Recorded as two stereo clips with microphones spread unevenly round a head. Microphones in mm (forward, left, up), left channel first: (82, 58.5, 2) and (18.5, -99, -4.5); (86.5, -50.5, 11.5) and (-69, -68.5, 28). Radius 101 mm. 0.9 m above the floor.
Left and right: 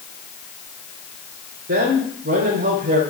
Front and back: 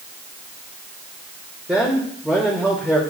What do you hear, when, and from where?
1.7 s a man speaking: 90° right, 3 m